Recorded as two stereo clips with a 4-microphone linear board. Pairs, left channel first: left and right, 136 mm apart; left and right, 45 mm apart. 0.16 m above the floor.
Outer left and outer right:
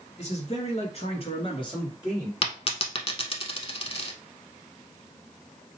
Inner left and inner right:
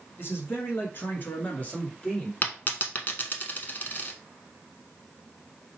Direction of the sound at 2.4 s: 45° left (ahead or behind).